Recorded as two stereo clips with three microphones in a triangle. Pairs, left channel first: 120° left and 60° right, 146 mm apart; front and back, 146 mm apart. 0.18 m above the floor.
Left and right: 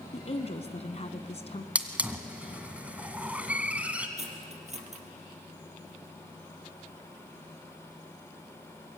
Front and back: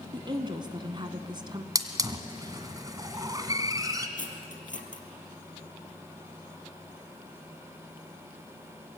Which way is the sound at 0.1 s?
135° left.